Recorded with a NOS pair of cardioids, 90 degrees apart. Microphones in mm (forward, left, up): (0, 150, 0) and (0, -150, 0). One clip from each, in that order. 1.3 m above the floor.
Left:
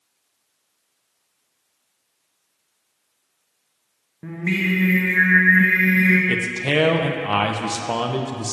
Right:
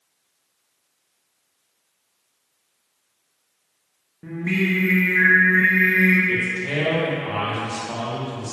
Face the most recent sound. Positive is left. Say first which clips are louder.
# left 2 dB
turn(degrees=60)